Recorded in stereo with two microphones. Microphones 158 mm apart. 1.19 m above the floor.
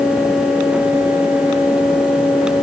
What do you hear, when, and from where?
Only background noise.